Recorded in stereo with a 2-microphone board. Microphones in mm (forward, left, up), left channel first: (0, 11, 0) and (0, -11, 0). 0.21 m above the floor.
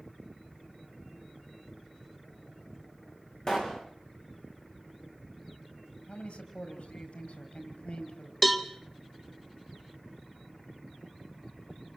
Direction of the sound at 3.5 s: 35° left (ahead or behind).